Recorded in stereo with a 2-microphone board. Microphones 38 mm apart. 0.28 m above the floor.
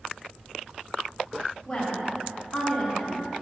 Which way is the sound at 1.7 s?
5° left (ahead or behind).